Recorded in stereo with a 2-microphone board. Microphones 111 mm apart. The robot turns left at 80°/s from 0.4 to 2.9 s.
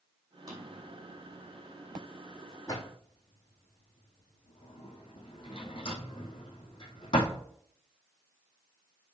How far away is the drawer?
About 3.5 m.